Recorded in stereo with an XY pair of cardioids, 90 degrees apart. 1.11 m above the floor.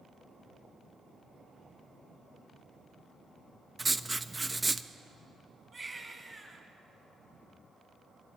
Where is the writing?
20° right, 1.0 m.